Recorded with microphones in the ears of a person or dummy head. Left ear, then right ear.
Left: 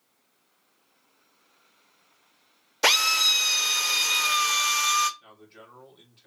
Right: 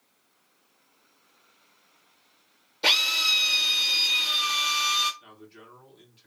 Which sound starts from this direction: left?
A drill, at 2.8 s.